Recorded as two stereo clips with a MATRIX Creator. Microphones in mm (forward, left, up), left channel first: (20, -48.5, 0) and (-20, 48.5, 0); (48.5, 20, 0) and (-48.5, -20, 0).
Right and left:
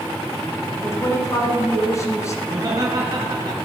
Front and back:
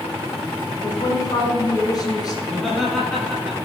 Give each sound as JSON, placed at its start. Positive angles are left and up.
{"t": 0.8, "sound": "a woman speaking", "azimuth_deg": -15, "distance_m": 2.0}
{"t": 2.4, "sound": "laughter", "azimuth_deg": 110, "distance_m": 1.8}